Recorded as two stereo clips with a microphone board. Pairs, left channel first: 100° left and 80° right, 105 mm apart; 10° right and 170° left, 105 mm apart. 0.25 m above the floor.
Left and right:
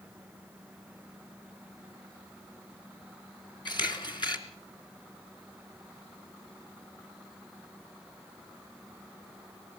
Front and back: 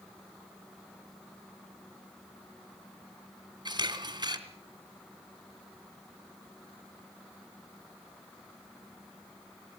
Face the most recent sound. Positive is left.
turn(degrees=130)